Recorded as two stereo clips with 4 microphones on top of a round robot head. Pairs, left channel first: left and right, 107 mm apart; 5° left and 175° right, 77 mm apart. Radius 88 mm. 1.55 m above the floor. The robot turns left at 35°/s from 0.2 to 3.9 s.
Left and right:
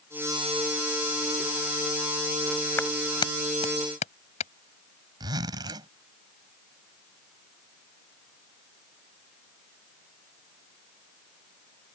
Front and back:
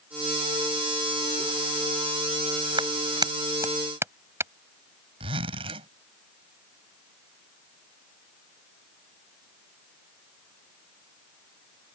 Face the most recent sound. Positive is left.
turn(degrees=-150)